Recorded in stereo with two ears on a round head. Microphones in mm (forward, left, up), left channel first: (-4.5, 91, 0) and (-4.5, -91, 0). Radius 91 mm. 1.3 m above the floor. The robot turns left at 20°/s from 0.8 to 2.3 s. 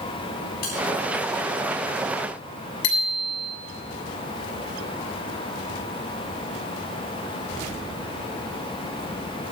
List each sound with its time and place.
0.6 s a bell: 50° left (ahead or behind), 8.5 m
2.8 s a bicycle bell: 85° left, 7.5 m